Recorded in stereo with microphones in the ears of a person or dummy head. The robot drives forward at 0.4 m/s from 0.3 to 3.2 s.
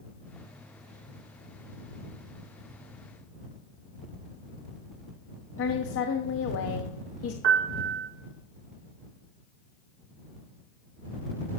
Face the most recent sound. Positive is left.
turn(degrees=-65)  # may be behind; listen again after turning